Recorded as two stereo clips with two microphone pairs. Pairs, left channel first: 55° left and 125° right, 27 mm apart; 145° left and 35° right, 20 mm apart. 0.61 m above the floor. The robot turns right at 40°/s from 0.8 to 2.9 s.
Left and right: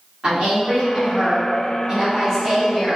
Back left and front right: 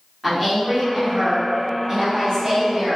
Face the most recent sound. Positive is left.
turn(degrees=-35)